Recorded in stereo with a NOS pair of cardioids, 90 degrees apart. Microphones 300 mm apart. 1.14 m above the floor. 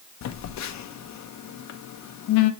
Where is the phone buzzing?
65° left, 0.9 m.